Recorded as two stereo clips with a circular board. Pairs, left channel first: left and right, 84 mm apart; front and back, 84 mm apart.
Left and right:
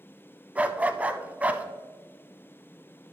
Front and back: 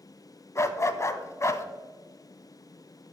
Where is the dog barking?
25° right, 0.5 m.